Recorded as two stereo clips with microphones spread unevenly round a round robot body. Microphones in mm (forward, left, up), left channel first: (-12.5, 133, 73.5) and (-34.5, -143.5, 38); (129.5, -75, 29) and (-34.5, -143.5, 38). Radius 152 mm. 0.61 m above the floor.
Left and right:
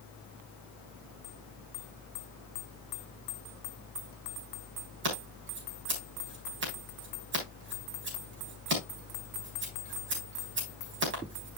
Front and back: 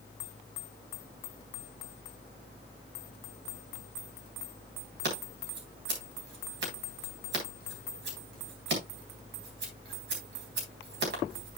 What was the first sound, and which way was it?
Scissors, 140° right.